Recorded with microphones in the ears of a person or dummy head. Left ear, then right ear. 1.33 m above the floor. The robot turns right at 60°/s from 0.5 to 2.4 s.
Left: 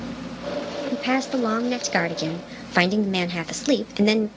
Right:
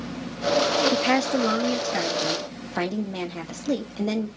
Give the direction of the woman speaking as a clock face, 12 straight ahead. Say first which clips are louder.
Right 2 dB; 12 o'clock.